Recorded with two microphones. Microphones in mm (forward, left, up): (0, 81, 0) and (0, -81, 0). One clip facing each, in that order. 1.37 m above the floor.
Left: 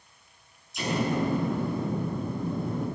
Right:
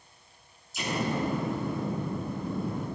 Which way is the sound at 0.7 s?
Centre (ahead or behind).